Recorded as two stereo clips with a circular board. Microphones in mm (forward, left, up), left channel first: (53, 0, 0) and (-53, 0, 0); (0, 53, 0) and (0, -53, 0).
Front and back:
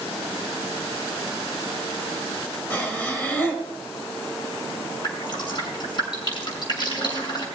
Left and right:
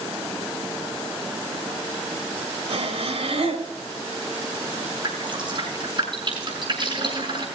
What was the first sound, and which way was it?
Breathing, 75° right.